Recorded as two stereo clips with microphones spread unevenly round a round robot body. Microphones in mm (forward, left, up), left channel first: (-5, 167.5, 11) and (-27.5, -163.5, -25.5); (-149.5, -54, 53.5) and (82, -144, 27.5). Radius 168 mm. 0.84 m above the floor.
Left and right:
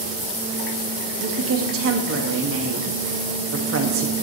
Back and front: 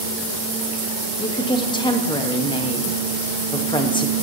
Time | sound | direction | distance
1.2 | a woman speaking | 130° right | 1.2 m